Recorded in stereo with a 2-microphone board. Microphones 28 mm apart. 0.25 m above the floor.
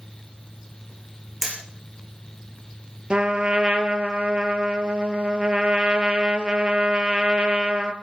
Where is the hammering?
5° right (ahead or behind), 5.5 m.